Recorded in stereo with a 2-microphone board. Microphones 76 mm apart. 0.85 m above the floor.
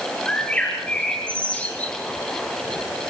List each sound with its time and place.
0.3 s a bird: 15° left (ahead or behind), 8 m